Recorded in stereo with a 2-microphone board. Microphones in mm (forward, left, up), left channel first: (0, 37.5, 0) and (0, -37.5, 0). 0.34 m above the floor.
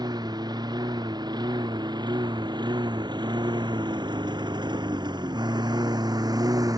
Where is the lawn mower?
70° right (ahead or behind); by 6.8 s 55° right (ahead or behind).